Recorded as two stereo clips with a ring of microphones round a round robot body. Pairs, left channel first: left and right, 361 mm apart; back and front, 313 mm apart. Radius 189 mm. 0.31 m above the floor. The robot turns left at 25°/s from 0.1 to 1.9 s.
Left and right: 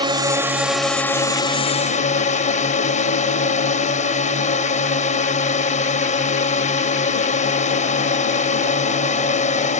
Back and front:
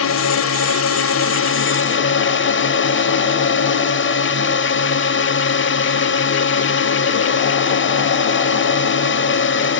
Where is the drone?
165° right; by 9.8 s 150° left.